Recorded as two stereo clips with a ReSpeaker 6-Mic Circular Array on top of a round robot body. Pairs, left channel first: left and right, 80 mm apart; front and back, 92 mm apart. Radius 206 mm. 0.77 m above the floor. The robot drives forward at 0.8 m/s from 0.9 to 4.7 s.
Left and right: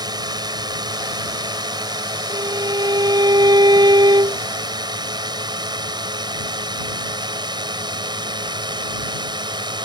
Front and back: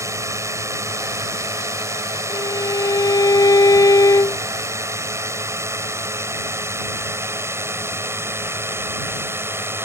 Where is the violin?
50° right; by 4.4 s 55° right.